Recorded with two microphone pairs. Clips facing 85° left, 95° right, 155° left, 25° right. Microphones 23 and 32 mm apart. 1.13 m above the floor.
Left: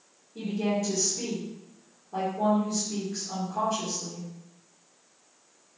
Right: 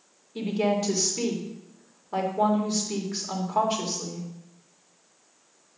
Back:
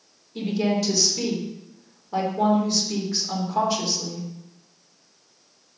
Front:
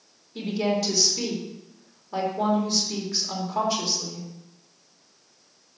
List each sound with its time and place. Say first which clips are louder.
0.3 s a woman speaking: right 3 dB, back 2 dB; 120° right, 3 m